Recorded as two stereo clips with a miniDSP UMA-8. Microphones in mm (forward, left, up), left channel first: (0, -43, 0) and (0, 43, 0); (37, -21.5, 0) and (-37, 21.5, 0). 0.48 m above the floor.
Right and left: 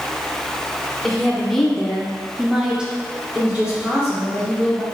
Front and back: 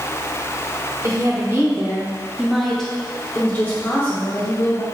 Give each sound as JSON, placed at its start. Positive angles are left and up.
{"t": 1.0, "sound": "a woman speaking", "azimuth_deg": -170, "distance_m": 1.0}